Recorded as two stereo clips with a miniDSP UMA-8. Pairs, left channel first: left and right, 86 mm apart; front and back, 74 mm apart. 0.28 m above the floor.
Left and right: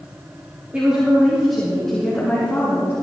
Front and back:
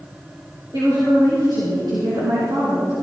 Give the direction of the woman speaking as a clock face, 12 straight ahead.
5 o'clock.